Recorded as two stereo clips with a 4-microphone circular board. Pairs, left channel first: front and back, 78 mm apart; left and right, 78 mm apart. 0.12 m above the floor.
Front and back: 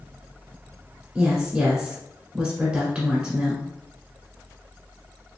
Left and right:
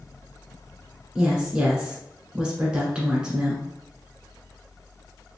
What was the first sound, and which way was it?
A woman speaking, 140° right.